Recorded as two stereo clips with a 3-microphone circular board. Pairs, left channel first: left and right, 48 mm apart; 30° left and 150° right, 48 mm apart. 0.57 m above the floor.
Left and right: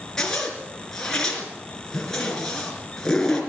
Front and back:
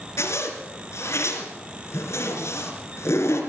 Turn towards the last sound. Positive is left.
turn(degrees=10)